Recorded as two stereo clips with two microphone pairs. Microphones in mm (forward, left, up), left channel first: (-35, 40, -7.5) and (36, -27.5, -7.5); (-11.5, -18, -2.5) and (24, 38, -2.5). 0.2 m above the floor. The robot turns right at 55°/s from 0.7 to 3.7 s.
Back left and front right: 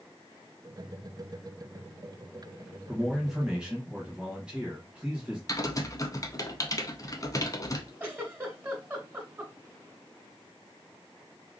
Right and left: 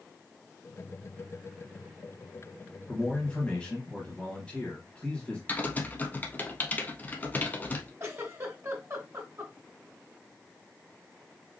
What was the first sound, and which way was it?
A man speaking, 150° right.